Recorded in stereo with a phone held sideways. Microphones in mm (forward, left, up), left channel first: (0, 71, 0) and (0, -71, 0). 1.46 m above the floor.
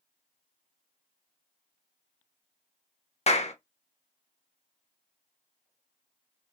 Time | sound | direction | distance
3.3 | a clap | 50° left (ahead or behind) | 0.5 m